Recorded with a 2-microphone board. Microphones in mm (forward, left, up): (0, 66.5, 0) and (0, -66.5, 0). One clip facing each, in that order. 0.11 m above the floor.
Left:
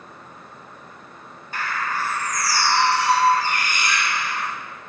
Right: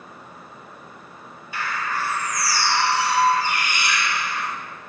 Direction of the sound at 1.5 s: 45° left (ahead or behind).